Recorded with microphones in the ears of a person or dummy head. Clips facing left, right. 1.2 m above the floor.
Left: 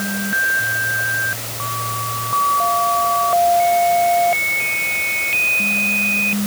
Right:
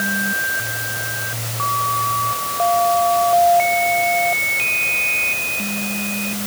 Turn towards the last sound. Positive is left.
No sound to turn to.